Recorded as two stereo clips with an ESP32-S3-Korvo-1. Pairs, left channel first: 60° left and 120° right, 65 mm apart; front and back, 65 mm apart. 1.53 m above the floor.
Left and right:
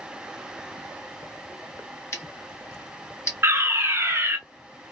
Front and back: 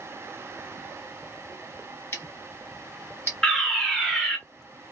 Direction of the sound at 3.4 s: 80° right.